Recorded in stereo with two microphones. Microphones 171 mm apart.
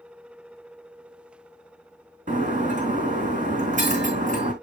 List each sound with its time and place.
2.3 s breaking glass: 50° right (ahead or behind), 3.5 m